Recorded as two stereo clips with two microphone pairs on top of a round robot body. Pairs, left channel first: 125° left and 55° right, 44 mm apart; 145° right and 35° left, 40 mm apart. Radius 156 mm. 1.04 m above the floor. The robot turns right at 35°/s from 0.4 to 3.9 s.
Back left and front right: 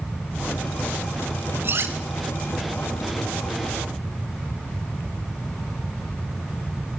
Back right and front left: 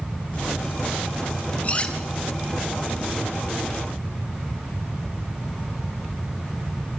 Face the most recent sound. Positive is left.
turn(degrees=-10)